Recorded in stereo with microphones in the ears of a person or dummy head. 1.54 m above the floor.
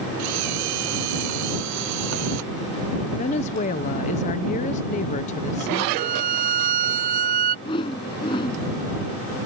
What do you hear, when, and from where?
0.2 s a camera shutter: 70° right (ahead or behind)
3.2 s a woman speaking: 35° left (ahead or behind)
6.0 s a violin: 45° right (ahead or behind)
7.7 s a whoosh: 25° left (ahead or behind)